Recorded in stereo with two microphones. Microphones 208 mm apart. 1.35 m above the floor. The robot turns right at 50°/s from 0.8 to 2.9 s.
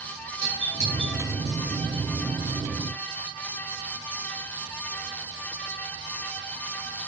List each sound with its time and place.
0.4 s a doorbell: 35° right (ahead or behind), 7 m; by 1.2 s 15° right (ahead or behind), 7 m